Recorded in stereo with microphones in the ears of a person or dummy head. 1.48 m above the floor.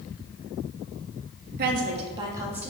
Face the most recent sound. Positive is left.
turn(degrees=-10)  # may be behind; listen again after turning